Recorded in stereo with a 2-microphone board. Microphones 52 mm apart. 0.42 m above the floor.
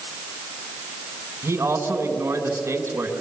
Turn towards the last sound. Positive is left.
turn(degrees=-50)  # may be behind; listen again after turning